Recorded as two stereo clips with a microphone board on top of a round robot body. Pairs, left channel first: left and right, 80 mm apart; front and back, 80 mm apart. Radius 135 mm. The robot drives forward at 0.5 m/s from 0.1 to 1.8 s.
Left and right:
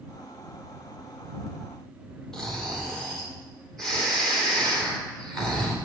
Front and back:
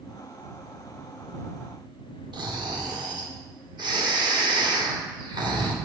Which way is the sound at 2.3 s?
175° left.